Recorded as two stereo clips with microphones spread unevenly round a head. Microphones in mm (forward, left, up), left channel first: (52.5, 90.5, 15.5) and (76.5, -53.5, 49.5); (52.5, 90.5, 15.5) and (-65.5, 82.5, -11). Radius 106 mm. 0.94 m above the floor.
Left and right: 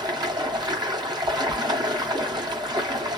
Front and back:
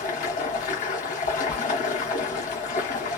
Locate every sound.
0.0 s running water: 20° right, 1.2 m